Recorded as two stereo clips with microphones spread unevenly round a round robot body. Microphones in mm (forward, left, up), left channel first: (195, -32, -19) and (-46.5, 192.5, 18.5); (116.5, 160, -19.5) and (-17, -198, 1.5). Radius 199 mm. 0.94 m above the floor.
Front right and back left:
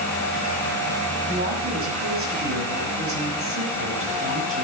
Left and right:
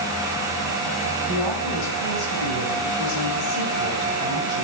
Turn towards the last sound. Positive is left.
turn(degrees=85)